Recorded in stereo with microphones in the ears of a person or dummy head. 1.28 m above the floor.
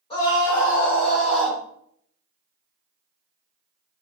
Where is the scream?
30° left (ahead or behind), 1.6 m; by 1.6 s 10° right (ahead or behind), 3.5 m.